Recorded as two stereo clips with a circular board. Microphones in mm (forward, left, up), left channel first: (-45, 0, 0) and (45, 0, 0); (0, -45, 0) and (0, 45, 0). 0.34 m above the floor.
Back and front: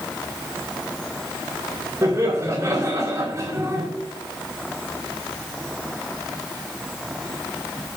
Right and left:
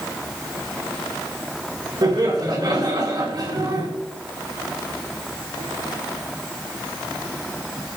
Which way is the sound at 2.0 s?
55° left.